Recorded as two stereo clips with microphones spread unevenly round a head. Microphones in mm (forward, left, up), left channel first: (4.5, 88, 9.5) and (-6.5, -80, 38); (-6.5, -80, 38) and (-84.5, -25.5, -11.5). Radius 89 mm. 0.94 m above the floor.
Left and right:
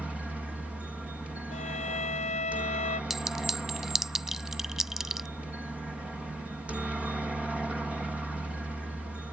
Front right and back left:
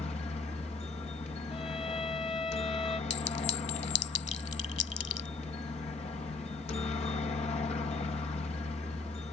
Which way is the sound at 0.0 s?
5° right.